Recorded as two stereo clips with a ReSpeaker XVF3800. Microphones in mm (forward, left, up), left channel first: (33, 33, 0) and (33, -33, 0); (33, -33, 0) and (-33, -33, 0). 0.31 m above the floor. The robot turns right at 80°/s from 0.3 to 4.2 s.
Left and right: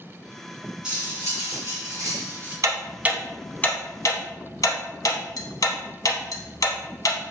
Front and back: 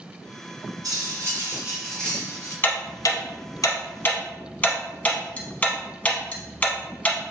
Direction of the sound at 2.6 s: 60° right.